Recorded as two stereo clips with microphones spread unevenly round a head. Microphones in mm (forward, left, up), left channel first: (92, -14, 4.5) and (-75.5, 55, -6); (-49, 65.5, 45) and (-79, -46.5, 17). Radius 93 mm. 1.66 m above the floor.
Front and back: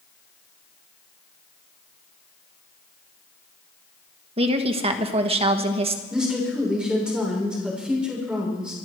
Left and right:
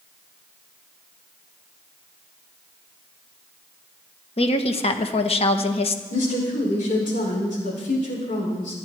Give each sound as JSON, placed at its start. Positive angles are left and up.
{"t": 4.4, "sound": "a woman speaking", "azimuth_deg": 100, "distance_m": 1.6}
{"t": 6.1, "sound": "a woman speaking", "azimuth_deg": 75, "distance_m": 6.5}